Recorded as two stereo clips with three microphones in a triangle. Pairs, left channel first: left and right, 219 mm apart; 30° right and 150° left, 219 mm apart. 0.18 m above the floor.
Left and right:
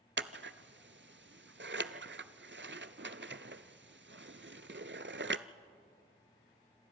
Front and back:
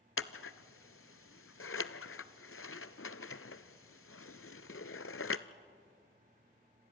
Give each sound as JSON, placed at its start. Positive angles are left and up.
{"t": 0.2, "sound": "scissors", "azimuth_deg": -50, "distance_m": 0.6}